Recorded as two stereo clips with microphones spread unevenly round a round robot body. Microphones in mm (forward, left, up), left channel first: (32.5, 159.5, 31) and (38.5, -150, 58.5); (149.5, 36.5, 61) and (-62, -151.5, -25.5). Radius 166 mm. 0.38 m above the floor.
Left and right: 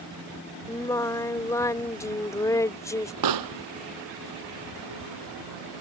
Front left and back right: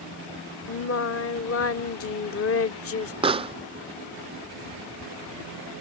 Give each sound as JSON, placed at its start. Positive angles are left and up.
{"t": 0.7, "sound": "singing", "azimuth_deg": 35}
{"t": 3.2, "sound": "a pop", "azimuth_deg": -65}